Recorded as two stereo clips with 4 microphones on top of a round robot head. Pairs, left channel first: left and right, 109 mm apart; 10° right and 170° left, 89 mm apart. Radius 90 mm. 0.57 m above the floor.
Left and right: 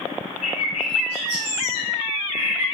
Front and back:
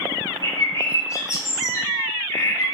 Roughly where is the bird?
Ahead left.